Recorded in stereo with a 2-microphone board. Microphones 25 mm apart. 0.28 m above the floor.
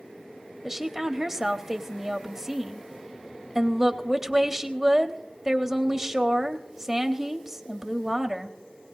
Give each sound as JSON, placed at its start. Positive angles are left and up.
{"t": 0.6, "sound": "a woman speaking", "side_deg": -15, "distance_m": 0.9}